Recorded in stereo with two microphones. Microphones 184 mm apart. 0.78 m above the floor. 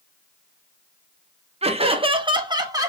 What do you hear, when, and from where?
1.6 s laughter: 35° right (ahead or behind), 0.7 m; by 2.9 s 20° right (ahead or behind), 1.0 m